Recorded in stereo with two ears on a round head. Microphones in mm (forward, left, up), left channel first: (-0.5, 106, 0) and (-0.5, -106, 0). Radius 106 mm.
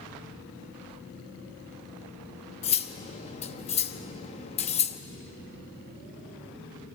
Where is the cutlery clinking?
30° left (ahead or behind), 1.0 m.